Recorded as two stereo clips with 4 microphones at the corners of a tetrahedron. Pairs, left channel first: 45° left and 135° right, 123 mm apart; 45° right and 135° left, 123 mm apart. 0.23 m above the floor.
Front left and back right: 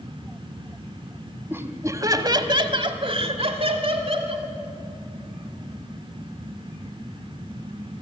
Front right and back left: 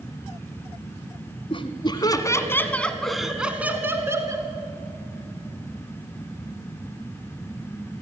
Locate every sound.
1.5 s laughter: 65° right, 1.5 m; by 4.5 s 165° right, 1.9 m